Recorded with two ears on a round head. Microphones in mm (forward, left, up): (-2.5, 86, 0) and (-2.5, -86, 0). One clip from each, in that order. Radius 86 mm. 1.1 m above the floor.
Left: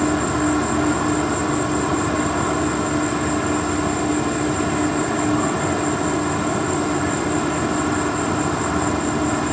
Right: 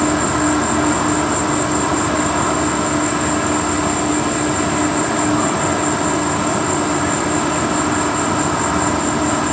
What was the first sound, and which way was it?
An insect, 25° right (ahead or behind).